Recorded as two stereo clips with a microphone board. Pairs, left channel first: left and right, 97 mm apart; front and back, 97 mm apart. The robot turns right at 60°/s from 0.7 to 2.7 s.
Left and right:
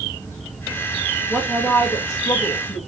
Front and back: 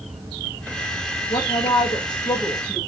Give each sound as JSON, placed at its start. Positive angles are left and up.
{"t": 1.3, "sound": "a woman speaking", "azimuth_deg": -5, "distance_m": 1.8}